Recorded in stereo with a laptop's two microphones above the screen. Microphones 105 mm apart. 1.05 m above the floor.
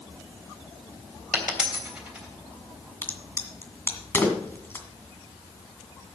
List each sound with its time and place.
1.3 s a dropped coin: 10° right (ahead or behind), 3 m
3.0 s a crack: 20° left (ahead or behind), 1.9 m